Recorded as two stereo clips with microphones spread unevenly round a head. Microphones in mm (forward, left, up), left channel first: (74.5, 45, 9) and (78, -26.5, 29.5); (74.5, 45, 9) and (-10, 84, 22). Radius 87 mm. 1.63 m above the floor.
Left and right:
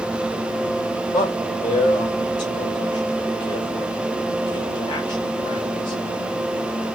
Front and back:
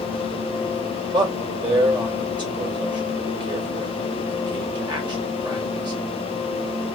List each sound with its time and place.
1.1 s a man speaking: 115° left, 1.9 m